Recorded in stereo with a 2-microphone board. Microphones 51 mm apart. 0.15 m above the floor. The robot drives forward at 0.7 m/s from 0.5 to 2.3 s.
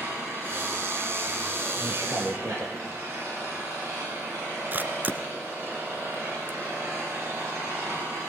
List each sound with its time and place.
0.0 s an engine running: 55° right (ahead or behind), 8.5 m; by 8.3 s 60° right (ahead or behind), 8 m
1.8 s a man speaking: 65° right (ahead or behind), 3.5 m
4.7 s a camera shutter: 40° right (ahead or behind), 1.1 m